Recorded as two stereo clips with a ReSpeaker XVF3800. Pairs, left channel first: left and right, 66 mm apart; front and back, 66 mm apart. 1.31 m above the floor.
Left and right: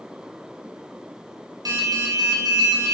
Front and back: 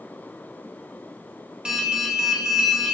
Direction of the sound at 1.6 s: 100° right.